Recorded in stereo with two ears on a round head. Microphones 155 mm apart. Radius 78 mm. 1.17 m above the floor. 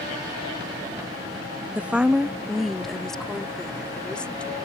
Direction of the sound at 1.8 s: 10° right (ahead or behind).